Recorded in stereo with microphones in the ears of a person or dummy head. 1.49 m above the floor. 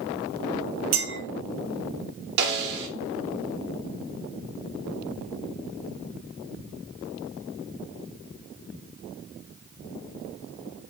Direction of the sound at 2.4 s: 60° right (ahead or behind).